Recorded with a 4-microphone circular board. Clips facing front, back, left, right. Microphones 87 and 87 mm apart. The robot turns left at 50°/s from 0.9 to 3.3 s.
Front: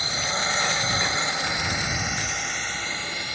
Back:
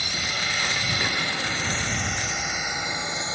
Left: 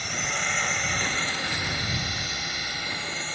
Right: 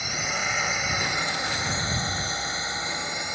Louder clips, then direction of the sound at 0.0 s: Front 3 dB, right 1 dB; 10° right.